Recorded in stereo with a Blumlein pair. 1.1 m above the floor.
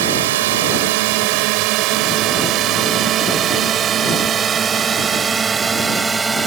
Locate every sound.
0.0 s a drone: 55° right; by 6.5 s 10° right